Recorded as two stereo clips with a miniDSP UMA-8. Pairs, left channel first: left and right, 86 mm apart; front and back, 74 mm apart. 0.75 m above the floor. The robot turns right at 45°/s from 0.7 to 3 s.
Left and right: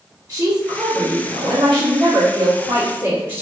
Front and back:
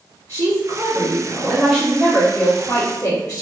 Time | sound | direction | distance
0.3 | a woman speaking | 150° right | 1.5 m